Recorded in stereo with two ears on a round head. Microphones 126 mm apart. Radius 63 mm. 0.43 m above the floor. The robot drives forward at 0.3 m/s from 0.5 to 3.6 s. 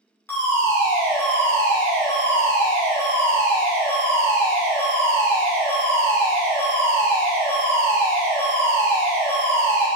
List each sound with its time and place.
0.3 s a fire alarm: 15° left (ahead or behind), 1.9 m